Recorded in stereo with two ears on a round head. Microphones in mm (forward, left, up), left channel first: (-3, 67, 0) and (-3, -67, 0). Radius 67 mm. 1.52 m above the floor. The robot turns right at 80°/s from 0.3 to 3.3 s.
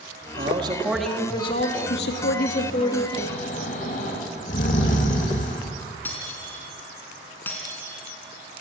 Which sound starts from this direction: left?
Snoring, at 3.1 s.